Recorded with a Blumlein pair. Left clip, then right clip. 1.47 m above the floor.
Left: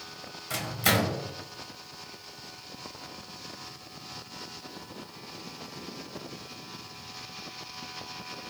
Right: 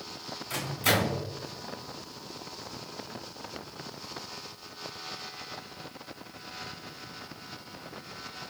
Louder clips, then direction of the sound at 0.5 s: Left 1 dB; 15° left.